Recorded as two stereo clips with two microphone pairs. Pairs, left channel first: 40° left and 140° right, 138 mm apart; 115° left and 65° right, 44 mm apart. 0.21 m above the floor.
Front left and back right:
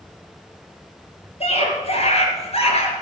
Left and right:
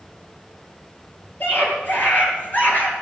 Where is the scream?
75° left, 5.5 m.